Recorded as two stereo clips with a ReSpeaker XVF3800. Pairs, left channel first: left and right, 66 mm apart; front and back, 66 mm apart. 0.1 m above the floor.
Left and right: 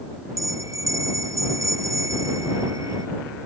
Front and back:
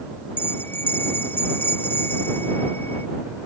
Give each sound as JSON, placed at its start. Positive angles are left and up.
{"t": 0.4, "sound": "a bell", "azimuth_deg": -55}